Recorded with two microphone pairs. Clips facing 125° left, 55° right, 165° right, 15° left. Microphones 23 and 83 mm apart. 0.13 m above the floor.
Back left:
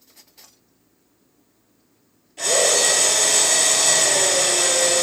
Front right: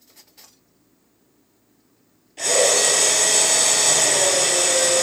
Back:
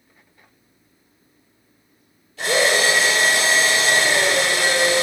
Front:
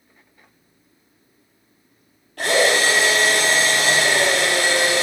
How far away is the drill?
About 4 m.